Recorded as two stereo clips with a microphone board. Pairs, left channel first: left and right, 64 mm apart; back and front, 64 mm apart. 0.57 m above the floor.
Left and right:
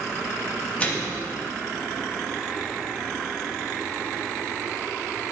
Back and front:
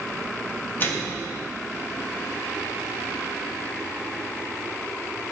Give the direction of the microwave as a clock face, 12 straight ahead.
7 o'clock.